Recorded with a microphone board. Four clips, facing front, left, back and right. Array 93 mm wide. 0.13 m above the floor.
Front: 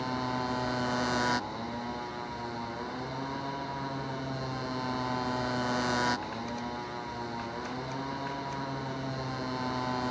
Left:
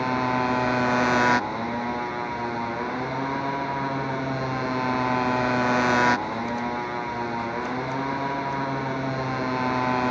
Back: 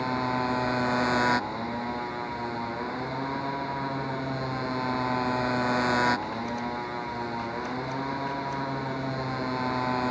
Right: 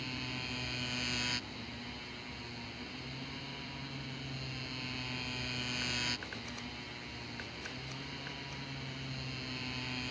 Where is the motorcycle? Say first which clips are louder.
Left 20 dB, back 5 dB; 105° left.